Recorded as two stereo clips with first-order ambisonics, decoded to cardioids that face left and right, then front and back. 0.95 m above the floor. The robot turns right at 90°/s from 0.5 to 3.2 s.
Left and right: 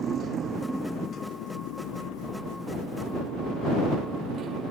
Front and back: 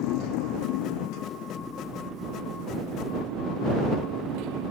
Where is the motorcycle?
25° right; by 4.7 s 150° right.